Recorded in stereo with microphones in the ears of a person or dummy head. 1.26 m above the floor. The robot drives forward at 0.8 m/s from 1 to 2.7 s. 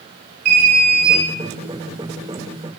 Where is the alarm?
60° right (ahead or behind), 4.5 m; by 1.2 s 55° right (ahead or behind), 4.5 m.